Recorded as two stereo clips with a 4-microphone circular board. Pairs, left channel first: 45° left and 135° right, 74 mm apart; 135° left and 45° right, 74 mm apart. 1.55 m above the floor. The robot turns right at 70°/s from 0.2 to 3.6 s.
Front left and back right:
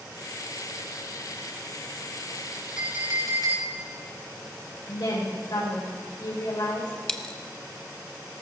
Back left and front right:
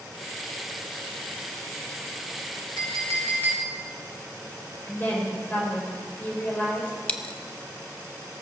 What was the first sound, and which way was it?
A clink, 150° left.